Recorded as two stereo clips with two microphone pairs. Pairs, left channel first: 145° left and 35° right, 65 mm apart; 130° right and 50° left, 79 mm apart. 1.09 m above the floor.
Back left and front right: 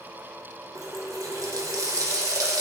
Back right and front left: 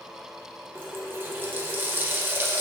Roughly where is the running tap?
Ahead.